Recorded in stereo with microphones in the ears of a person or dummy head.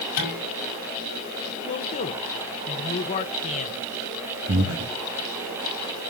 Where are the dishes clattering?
50° left (ahead or behind), 5.5 m.